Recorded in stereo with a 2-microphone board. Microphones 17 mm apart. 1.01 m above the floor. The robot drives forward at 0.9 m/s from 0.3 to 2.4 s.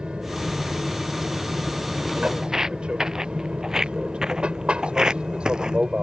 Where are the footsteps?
35° right (ahead or behind); by 5.8 s 55° right (ahead or behind).